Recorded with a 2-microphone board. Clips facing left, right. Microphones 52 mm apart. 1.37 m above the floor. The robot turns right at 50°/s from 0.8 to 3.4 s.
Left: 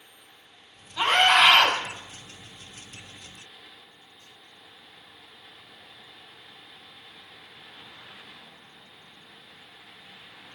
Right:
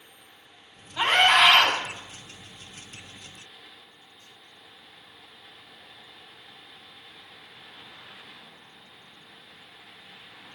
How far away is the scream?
About 8 m.